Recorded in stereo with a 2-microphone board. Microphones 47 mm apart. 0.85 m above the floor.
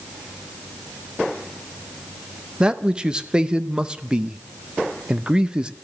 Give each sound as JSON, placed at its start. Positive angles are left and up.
{"t": 2.6, "sound": "a man speaking", "side_deg": -20, "distance_m": 0.7}